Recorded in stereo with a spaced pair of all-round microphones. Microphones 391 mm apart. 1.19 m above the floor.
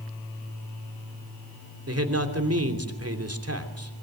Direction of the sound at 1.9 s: 35° right (ahead or behind).